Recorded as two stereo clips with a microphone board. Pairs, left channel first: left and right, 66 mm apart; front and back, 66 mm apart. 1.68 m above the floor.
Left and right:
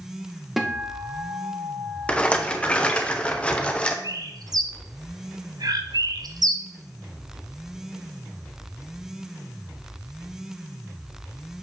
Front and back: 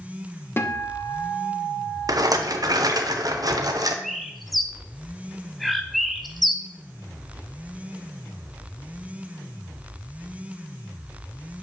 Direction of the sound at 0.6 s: 5° right.